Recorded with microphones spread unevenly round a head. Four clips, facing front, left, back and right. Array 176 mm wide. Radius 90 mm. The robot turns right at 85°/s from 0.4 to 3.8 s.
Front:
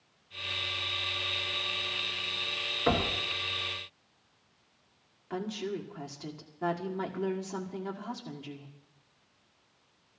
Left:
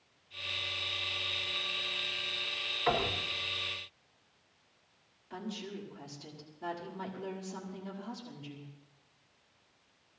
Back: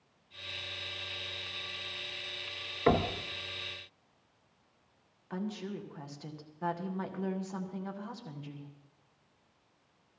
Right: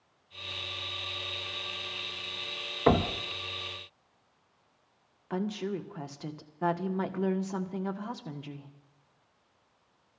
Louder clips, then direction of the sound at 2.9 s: Right 6 dB, back 1 dB; 105° right.